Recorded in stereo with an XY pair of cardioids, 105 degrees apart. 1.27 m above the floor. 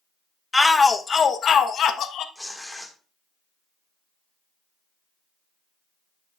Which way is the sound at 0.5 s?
10° left.